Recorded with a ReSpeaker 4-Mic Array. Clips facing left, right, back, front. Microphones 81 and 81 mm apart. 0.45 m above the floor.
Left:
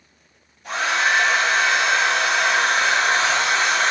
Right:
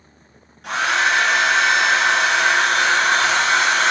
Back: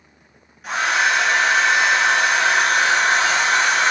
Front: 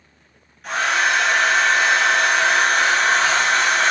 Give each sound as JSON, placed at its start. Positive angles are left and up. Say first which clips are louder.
{"t": 0.6, "sound": "a hair dryer", "louder": "right 2 dB, even", "azimuth_deg": -95, "distance_m": 1.5}